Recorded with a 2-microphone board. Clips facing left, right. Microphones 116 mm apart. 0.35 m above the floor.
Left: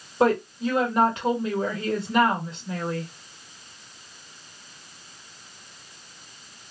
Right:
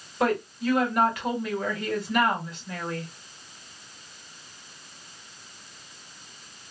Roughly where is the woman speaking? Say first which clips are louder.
Left 4 dB; left.